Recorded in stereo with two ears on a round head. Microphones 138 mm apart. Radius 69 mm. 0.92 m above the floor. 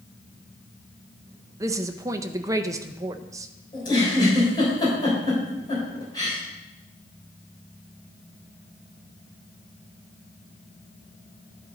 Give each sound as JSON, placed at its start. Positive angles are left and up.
{"t": 1.6, "sound": "a woman speaking", "side_deg": -20, "distance_m": 0.6}
{"t": 3.7, "sound": "a giggle", "side_deg": 30, "distance_m": 4.0}